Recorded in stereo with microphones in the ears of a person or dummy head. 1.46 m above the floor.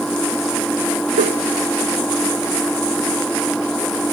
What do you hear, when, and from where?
0.0 s an engine running: centre (ahead or behind)
1.1 s a whoosh: 40° right (ahead or behind)